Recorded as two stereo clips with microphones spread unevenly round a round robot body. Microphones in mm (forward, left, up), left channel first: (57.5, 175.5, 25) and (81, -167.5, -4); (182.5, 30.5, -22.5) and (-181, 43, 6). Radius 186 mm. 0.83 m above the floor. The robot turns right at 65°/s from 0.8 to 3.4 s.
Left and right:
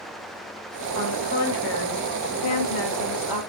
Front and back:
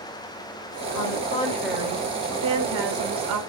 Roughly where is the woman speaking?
Ahead left.